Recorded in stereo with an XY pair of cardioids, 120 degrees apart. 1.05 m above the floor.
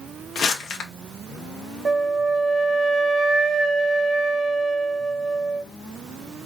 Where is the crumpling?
60° left, 1.1 m.